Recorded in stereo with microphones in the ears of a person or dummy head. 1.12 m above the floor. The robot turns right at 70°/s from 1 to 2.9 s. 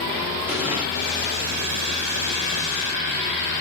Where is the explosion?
10° right (ahead or behind), 1.0 m.